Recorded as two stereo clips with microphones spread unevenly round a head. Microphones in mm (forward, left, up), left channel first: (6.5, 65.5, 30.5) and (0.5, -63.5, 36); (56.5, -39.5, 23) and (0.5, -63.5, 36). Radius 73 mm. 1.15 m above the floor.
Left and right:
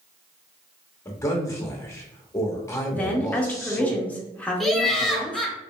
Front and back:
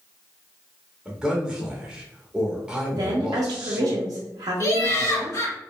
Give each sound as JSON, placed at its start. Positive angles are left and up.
{"t": 1.1, "sound": "a man speaking", "azimuth_deg": 115, "distance_m": 0.7}
{"t": 2.9, "sound": "a woman speaking", "azimuth_deg": 165, "distance_m": 0.6}
{"t": 4.6, "sound": "laughter", "azimuth_deg": 0, "distance_m": 1.0}